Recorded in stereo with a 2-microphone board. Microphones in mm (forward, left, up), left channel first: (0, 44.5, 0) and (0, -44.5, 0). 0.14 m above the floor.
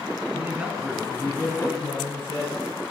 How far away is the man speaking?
About 1.5 m.